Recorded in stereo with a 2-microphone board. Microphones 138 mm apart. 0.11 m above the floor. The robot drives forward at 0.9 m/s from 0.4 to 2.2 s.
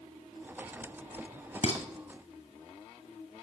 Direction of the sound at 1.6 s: 50° left (ahead or behind).